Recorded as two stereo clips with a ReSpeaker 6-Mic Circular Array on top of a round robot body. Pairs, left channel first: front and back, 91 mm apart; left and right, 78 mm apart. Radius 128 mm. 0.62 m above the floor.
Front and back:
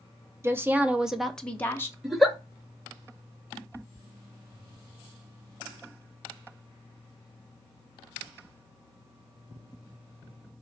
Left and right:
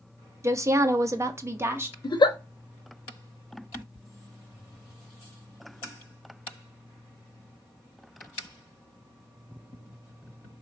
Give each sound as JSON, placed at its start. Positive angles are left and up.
{"t": 0.4, "sound": "a woman speaking", "azimuth_deg": -130, "distance_m": 0.9}
{"t": 2.0, "sound": "a giggle", "azimuth_deg": 90, "distance_m": 0.8}